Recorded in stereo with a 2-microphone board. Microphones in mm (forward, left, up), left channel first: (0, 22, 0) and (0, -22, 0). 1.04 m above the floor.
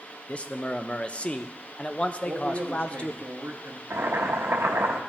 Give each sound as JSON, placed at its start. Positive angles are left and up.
{"t": 0.3, "sound": "a man speaking", "side_deg": 30, "distance_m": 0.5}
{"t": 2.2, "sound": "a man speaking", "side_deg": -70, "distance_m": 1.2}
{"t": 3.9, "sound": "boiling", "side_deg": -70, "distance_m": 1.0}